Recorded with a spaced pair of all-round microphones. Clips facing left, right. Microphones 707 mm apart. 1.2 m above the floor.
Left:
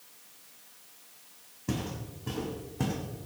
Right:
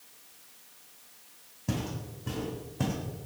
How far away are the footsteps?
About 3 m.